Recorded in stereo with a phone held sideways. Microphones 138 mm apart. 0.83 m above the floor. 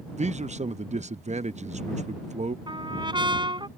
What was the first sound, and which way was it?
A man speaking, 55° right (ahead or behind).